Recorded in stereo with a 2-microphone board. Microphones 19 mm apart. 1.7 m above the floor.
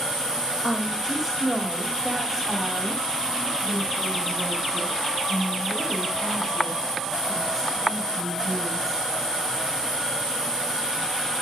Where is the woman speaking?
Centre (ahead or behind), 3 m; by 9.0 s 5° left (ahead or behind), 7.5 m.